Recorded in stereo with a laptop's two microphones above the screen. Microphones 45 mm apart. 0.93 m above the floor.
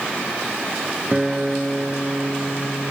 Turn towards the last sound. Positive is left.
turn(degrees=-15)  # may be behind; listen again after turning